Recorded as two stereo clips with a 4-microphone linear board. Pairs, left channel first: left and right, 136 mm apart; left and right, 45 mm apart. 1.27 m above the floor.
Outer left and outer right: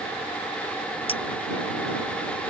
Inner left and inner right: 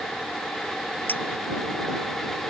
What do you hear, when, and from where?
1.1 s a clink: 40° left (ahead or behind)